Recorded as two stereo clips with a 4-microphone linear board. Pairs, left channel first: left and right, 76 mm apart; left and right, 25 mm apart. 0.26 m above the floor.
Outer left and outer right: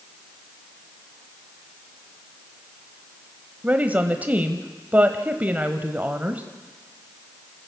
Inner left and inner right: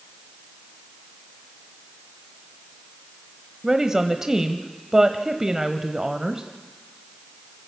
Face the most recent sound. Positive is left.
turn(degrees=-20)  # may be behind; listen again after turning